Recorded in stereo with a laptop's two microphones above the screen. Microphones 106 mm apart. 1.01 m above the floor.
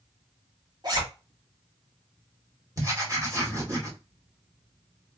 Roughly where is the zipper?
Right.